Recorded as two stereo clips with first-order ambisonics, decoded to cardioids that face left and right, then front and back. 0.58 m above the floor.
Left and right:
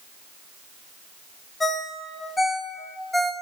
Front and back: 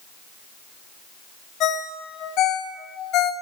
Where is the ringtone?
15° left, 0.5 m.